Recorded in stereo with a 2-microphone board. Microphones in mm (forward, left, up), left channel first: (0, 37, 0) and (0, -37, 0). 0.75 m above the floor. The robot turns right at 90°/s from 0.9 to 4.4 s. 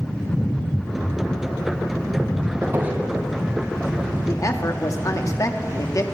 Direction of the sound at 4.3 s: 35° left (ahead or behind).